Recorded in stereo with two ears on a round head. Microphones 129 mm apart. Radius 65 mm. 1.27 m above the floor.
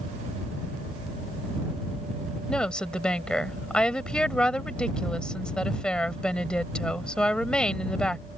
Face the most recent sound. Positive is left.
turn(degrees=5)  # may be behind; listen again after turning